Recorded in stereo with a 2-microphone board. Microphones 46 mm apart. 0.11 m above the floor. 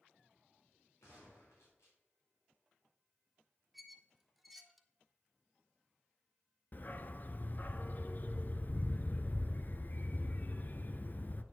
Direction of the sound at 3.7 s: 5° right (ahead or behind).